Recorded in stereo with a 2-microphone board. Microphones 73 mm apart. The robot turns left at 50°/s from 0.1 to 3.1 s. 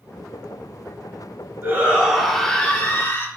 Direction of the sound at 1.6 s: 150° right.